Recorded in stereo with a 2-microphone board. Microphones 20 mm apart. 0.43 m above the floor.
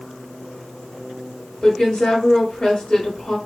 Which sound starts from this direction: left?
A woman speaking, at 1.6 s.